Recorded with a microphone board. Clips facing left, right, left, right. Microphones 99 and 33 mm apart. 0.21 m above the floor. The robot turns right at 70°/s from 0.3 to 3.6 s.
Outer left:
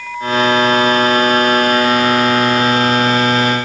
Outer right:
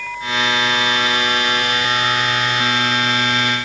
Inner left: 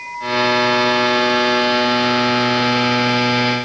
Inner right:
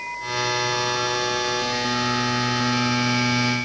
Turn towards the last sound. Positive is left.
No sound to turn to.